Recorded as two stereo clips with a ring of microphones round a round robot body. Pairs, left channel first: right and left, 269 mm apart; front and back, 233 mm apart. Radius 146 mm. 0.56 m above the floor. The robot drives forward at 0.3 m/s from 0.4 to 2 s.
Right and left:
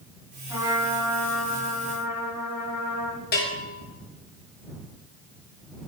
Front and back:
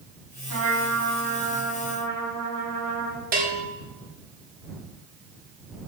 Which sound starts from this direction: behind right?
A bell, at 3.3 s.